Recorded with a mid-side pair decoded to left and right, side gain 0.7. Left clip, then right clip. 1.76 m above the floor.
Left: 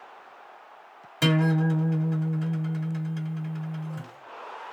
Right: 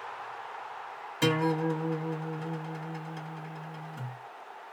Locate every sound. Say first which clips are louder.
1.2 s a guitar: left 2 dB; 15° left, 1.5 m